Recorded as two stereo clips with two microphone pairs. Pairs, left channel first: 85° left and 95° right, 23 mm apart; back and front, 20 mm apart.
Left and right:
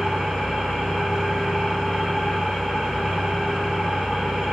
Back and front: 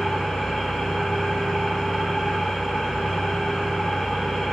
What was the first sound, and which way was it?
An engine running, 130° right.